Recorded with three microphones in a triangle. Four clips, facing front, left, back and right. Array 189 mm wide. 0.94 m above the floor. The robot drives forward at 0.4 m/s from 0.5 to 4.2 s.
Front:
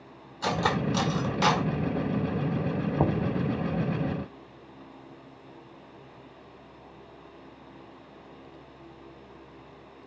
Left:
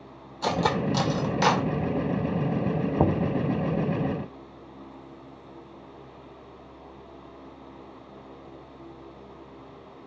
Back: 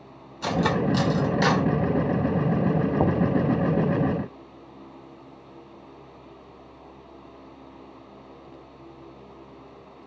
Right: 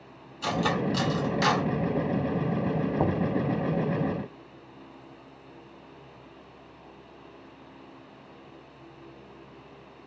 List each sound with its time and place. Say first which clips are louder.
0.4 s cutlery clinking: left 2 dB, back 3 dB; 90° left, 1.6 m; by 1.7 s 105° left, 1.7 m
3.0 s knocking: left 4 dB, back 2 dB; 115° left, 0.5 m; by 3.4 s 140° left, 0.6 m